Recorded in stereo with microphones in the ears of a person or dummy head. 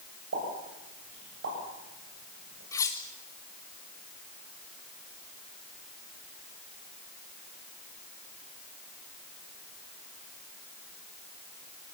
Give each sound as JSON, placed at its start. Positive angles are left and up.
{"t": 0.3, "sound": "a pop", "side_deg": -75, "distance_m": 8.0}
{"t": 2.7, "sound": "cutlery clinking", "side_deg": 10, "distance_m": 1.6}